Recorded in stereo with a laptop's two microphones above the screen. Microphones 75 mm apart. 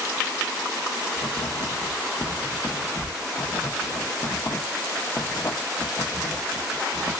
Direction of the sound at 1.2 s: 75° left (ahead or behind).